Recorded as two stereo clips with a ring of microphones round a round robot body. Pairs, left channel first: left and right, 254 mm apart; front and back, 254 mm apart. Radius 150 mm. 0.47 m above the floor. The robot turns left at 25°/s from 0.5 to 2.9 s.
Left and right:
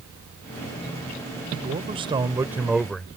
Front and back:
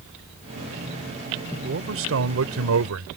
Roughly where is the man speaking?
Behind right.